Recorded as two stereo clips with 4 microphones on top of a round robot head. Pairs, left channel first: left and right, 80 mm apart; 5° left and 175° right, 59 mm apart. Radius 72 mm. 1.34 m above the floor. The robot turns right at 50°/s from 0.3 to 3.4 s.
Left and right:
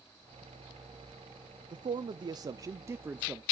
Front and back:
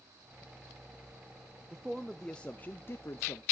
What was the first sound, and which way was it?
A man speaking, 95° right.